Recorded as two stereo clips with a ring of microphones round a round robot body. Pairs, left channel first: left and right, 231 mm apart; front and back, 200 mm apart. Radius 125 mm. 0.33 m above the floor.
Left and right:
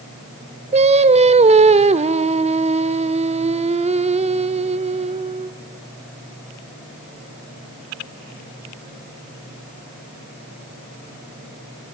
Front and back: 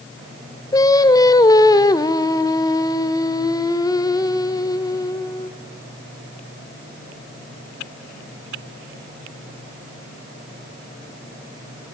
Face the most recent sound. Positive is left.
turn(degrees=-55)